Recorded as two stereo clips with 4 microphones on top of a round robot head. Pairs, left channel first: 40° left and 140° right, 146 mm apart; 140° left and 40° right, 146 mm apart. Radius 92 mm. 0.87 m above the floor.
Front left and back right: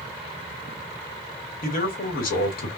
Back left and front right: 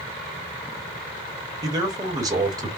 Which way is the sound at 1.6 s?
25° left.